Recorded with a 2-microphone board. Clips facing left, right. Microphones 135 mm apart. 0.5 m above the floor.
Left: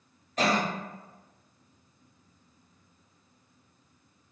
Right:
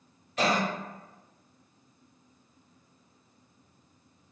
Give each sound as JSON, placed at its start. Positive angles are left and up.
{"t": 0.4, "sound": "a cough", "side_deg": 40, "distance_m": 1.7}